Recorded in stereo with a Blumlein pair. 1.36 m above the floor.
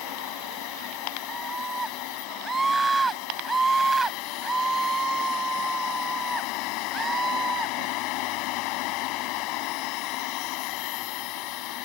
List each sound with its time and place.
0.0 s a machine running: 40° left
1.3 s a scream: 10° right